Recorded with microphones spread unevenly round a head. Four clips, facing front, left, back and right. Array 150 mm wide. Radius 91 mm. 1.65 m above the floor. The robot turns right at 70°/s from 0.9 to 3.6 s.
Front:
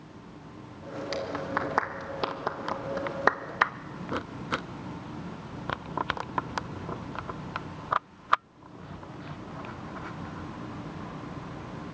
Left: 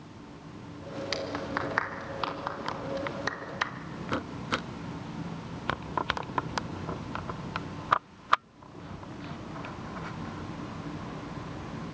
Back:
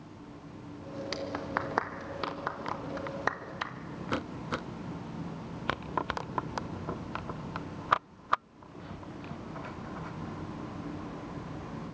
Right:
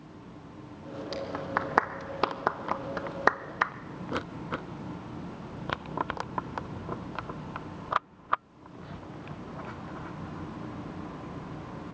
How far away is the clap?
About 1.4 m.